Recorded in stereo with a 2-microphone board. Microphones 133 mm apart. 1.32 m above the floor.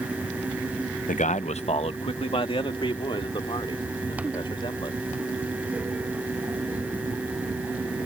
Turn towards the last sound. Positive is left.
turn(degrees=35)  # may be behind; listen again after turning